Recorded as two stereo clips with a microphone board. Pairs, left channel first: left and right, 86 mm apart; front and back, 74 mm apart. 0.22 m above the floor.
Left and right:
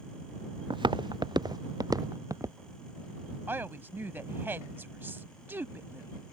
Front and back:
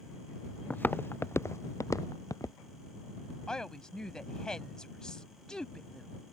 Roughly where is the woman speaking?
Right.